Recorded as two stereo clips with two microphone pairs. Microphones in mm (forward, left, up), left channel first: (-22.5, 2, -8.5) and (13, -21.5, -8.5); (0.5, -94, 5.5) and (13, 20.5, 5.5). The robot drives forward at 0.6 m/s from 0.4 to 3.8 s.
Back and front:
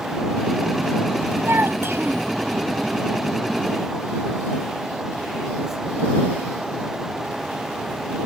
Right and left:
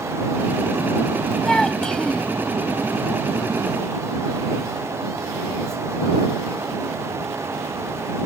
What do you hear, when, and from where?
1.4 s a child speaking: 15° right